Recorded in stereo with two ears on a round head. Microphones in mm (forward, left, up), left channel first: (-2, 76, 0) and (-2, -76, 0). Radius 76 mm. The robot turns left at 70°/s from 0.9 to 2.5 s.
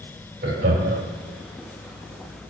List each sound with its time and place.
0.4 s laughter: 70° right (ahead or behind), 3 m